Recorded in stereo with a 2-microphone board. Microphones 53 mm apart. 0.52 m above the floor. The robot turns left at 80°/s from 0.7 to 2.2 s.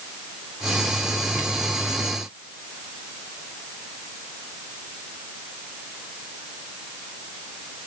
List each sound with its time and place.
Only background noise.